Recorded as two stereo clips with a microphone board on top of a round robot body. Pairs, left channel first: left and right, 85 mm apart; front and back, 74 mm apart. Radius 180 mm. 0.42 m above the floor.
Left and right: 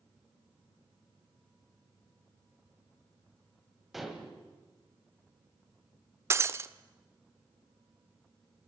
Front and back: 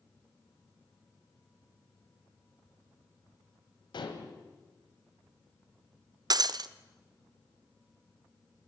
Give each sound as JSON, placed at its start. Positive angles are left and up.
{"t": 3.9, "sound": "dishes clattering", "azimuth_deg": 0, "distance_m": 2.5}
{"t": 6.3, "sound": "breaking glass", "azimuth_deg": -150, "distance_m": 0.6}